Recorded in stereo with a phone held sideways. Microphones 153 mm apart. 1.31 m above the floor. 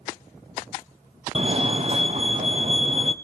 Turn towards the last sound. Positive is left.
turn(degrees=-40)  # may be behind; listen again after turning